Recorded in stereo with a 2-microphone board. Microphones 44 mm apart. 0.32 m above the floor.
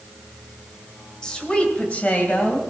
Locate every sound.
1.2 s a woman speaking: 15° left (ahead or behind), 1.6 m; by 2.6 s 40° left (ahead or behind), 2.5 m